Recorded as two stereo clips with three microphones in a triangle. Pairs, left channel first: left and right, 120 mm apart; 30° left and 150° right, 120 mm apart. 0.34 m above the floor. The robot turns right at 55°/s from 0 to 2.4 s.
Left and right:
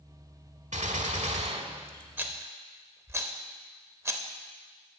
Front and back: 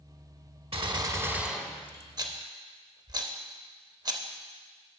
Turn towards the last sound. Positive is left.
turn(degrees=-140)